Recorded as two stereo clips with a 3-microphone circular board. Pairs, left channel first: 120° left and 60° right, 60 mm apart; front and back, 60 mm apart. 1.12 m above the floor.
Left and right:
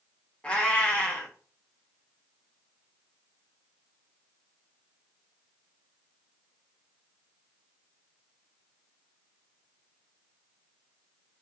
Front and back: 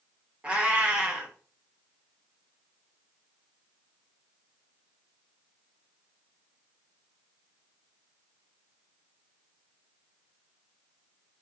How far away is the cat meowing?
About 0.7 m.